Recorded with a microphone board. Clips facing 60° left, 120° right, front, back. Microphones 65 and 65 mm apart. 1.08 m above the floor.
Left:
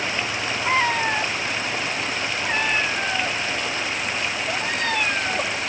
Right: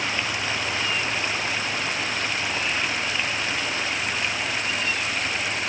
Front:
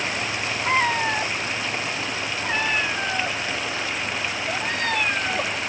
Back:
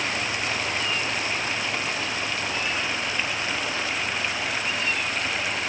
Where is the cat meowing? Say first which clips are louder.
Left 6 dB, front 6 dB; 30° left.